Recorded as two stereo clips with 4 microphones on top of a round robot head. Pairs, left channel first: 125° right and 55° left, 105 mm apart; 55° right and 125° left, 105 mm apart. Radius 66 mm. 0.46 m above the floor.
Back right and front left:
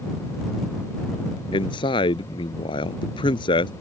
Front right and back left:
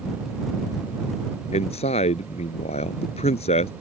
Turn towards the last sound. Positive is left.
turn(degrees=-85)